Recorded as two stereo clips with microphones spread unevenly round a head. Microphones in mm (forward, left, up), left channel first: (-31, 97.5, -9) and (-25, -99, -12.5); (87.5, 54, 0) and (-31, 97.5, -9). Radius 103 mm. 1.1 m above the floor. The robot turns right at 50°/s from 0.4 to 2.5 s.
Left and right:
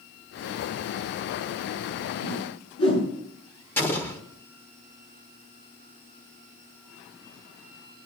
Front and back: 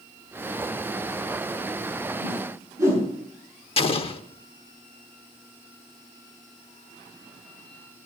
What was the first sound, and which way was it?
A whoosh, 80° left.